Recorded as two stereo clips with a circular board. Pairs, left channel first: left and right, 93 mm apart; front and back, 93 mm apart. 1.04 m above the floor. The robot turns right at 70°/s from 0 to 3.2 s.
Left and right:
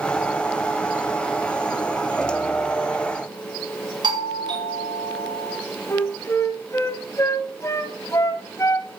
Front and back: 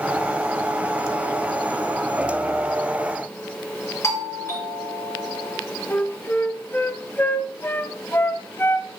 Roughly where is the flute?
Ahead left.